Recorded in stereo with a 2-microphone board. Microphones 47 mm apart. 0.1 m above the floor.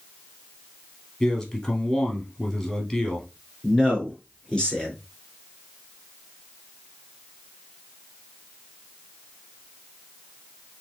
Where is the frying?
I don't hear frying.